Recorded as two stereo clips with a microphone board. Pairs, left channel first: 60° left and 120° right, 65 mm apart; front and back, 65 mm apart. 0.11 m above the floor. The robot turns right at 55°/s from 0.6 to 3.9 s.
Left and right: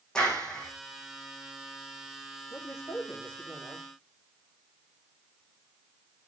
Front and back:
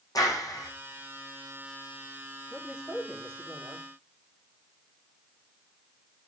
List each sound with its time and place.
0.1 s a clap: 20° right, 5.5 m; by 0.7 s 15° right, 5.5 m
2.5 s a man speaking: 90° left, 7.5 m; by 3.9 s 165° left, 7.5 m